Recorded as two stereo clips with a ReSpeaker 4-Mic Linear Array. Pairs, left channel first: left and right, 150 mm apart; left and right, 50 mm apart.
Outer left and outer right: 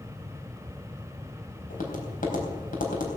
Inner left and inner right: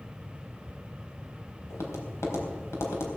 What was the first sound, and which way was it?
Tapping, 90° left.